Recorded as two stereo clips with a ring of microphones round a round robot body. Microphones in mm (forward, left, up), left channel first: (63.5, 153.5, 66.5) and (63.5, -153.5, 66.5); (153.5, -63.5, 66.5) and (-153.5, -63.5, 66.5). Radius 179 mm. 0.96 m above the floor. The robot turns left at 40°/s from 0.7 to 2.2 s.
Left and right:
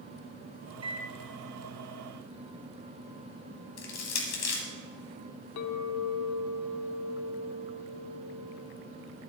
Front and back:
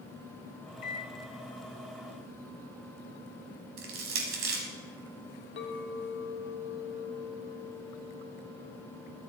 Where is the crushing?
130° left, 1.2 m.